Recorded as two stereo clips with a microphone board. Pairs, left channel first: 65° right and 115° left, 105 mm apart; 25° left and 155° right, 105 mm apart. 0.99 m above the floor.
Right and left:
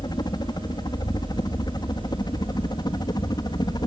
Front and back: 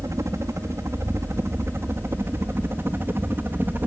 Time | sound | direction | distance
0.0 | a helicopter | 105° right | ?